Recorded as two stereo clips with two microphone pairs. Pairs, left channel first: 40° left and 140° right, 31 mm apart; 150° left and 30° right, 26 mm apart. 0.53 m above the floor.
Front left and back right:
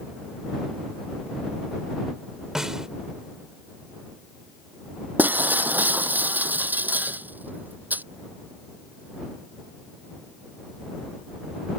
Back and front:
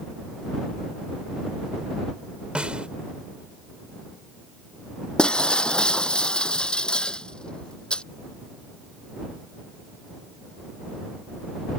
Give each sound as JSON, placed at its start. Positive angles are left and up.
{"t": 2.5, "sound": "a snare drum", "azimuth_deg": -70}
{"t": 5.2, "sound": "breaking glass", "azimuth_deg": -160}